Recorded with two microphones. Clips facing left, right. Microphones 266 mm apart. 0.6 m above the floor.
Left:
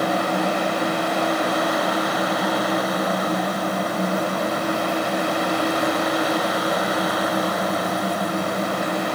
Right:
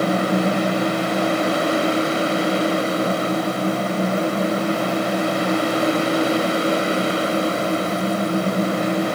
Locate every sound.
Only background noise.